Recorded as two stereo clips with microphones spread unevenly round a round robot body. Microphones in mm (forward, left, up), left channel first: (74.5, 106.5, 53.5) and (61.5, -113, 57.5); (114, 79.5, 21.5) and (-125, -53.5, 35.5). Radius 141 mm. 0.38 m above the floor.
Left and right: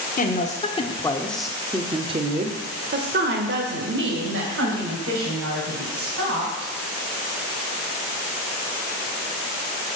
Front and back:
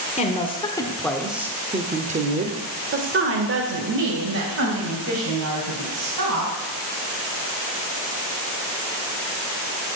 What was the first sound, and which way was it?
A woman speaking, 75° left.